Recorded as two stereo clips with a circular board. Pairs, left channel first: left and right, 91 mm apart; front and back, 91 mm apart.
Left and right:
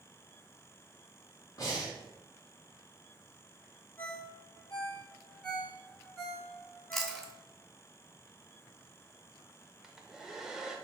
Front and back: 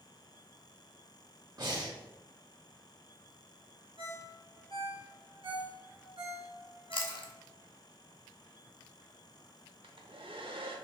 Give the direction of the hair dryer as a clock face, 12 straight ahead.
6 o'clock.